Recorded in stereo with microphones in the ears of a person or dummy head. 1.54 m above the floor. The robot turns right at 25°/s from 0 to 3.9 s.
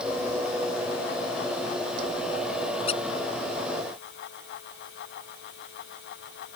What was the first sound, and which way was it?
A squeak, 35° left (ahead or behind).